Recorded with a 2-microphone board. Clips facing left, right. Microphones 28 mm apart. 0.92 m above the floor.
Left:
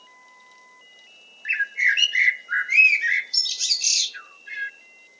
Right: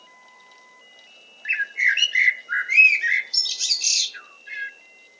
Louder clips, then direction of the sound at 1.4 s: Even; 5° right (ahead or behind).